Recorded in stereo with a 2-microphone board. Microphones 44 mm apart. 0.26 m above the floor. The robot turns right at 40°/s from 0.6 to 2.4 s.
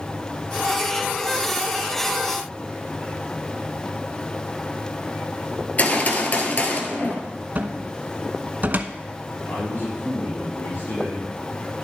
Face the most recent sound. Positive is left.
turn(degrees=55)  # may be behind; listen again after turning